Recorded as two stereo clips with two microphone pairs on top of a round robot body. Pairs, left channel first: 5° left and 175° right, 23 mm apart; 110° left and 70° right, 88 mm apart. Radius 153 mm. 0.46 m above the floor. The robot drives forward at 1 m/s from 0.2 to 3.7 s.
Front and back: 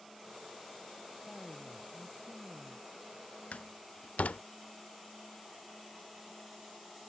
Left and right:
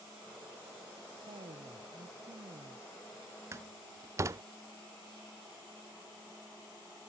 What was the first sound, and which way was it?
A woman speaking, 85° right.